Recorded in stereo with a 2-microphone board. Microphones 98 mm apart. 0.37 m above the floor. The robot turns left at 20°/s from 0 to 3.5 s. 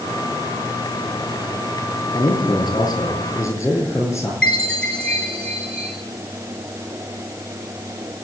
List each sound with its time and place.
2.1 s a man speaking: 60° left (ahead or behind), 9 m; by 4.3 s 30° left (ahead or behind), 9 m
4.4 s a chime: 10° left (ahead or behind), 3.5 m